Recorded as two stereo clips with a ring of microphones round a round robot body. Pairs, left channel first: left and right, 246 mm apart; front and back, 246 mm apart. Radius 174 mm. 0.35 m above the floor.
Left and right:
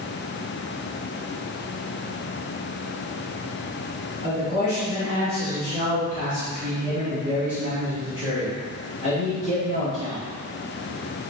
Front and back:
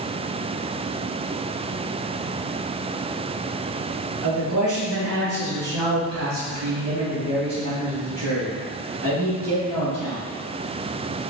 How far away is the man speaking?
About 2.5 m.